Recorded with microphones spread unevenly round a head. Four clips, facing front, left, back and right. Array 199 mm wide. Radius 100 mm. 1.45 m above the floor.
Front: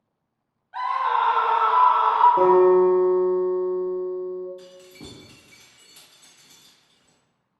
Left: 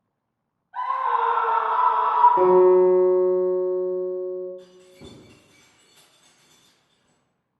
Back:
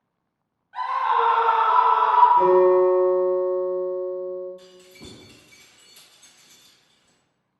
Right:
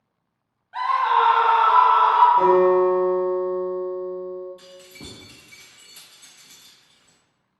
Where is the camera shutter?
I don't hear a camera shutter.